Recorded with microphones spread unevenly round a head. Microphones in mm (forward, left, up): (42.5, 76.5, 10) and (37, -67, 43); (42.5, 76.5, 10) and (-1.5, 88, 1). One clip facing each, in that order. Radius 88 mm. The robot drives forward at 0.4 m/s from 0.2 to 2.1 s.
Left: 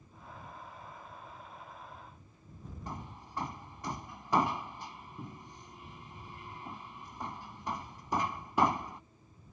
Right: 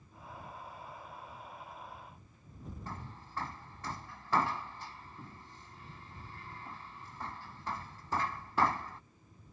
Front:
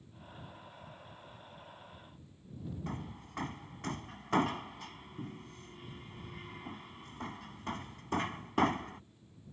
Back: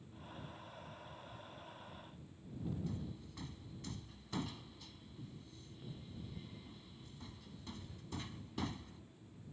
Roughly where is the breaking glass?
No breaking glass in this recording.